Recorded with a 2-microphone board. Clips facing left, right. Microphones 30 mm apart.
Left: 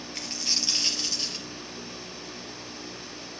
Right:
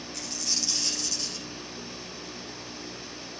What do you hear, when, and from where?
0.1 s a dropped coin: 40° left (ahead or behind), 2.5 m